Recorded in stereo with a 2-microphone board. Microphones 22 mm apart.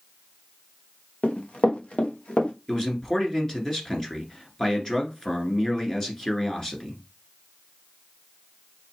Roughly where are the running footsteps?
Left.